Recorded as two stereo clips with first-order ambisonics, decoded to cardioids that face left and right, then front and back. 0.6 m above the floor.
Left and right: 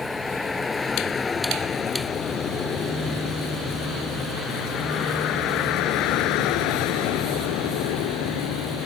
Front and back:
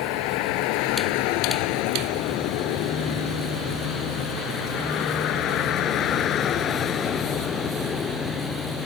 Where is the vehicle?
10° left; by 8.8 s 75° left.